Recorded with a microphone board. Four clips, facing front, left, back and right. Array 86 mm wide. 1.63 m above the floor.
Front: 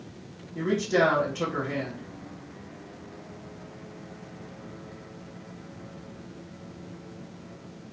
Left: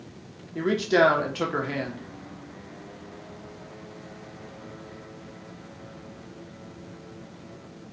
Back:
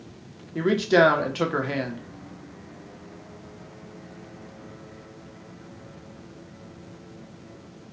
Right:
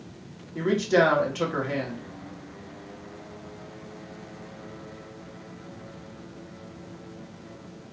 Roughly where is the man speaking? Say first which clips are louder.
Even, back 5 dB; behind.